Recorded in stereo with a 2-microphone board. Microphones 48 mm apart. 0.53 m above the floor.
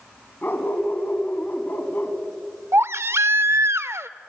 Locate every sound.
0.4 s a dog barking: 45° left (ahead or behind), 2 m
2.7 s a baby crying: 65° right (ahead or behind), 0.5 m